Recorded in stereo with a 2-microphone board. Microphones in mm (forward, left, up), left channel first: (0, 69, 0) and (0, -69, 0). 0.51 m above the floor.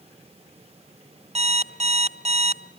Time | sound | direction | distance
1.4 | an alarm clock | 50° right (ahead or behind) | 0.8 m